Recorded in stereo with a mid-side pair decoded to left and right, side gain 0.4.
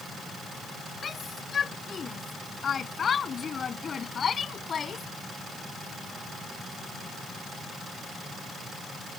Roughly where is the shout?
Ahead left.